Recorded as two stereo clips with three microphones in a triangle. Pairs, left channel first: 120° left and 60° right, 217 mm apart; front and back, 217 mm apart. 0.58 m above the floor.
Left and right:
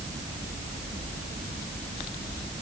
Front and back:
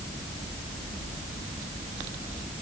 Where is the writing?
I don't hear writing.